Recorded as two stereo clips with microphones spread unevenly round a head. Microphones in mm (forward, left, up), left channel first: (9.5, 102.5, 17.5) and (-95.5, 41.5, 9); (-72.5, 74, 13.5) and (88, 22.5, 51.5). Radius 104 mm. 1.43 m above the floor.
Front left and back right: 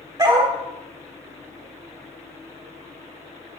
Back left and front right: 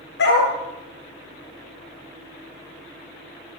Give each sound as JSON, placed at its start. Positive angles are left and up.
{"t": 0.2, "sound": "a dog barking", "azimuth_deg": 155, "distance_m": 3.5}